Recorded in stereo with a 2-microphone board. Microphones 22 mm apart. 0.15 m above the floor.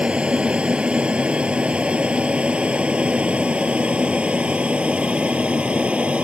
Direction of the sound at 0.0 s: 50° right (ahead or behind).